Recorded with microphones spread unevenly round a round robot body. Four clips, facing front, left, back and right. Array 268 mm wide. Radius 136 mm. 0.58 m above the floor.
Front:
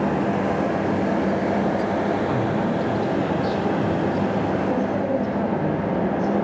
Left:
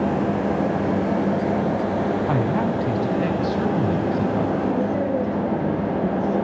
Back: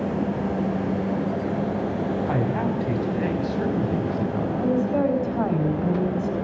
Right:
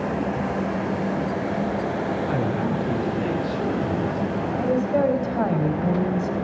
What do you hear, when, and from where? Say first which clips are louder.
2.3 s a man speaking: left 3 dB, front 2 dB; 90° left, 6 m; by 4.5 s 100° left, 4 m
4.6 s a woman speaking: right 1 dB, back 1 dB; 105° right, 4 m